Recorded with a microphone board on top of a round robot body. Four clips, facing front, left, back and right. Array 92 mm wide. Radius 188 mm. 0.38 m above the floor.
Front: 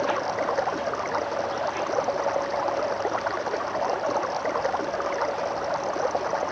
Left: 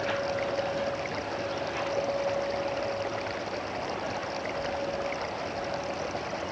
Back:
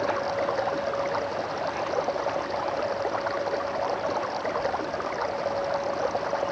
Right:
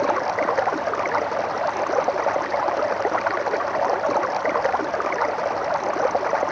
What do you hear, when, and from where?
0.0 s running water: 80° right